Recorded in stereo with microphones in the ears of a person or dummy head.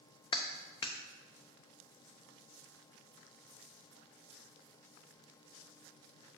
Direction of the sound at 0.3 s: 35° left (ahead or behind).